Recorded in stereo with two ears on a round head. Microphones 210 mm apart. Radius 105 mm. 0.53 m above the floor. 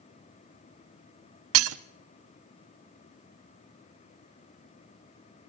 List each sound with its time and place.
1.5 s breaking glass: 65° right (ahead or behind), 0.7 m